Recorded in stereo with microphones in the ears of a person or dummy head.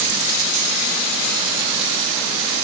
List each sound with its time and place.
Only background noise.